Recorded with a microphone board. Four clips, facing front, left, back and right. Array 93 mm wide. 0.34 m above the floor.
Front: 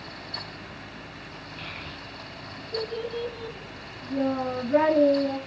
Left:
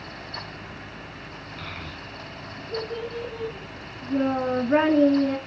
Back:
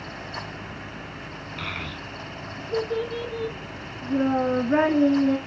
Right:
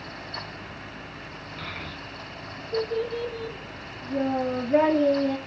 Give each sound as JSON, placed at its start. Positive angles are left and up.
{"t": 1.6, "sound": "a child speaking", "azimuth_deg": 180, "distance_m": 2.5}